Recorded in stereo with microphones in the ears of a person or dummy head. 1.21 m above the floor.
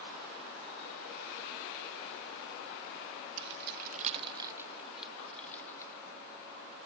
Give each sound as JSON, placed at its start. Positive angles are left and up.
{"t": 3.4, "sound": "keys jangling", "side_deg": -75}